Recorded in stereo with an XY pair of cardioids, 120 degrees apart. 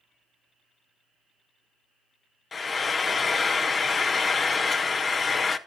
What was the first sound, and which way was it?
Frying, 35° left.